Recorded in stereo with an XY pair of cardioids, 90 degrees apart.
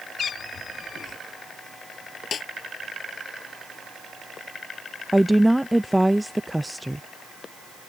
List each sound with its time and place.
0.2 s a cat meowing: 60° left
2.3 s a snare drum: 55° left
5.1 s a woman speaking: 5° right